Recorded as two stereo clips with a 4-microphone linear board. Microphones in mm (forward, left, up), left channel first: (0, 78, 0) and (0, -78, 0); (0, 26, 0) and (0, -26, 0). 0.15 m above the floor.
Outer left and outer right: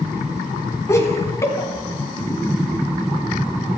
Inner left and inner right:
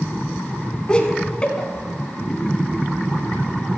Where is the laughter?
20° left (ahead or behind), 1.2 m.